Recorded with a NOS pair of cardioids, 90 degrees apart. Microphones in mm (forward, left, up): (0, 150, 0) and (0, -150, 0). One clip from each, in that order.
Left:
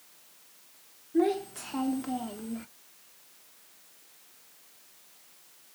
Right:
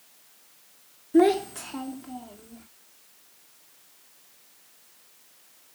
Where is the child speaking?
55° right, 0.6 m; by 2.7 s 55° left, 1.0 m.